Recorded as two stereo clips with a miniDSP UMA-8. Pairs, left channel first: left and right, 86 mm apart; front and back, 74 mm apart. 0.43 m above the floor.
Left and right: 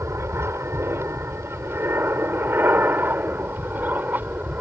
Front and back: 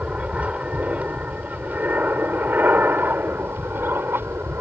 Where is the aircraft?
120° right; by 4.6 s 145° right.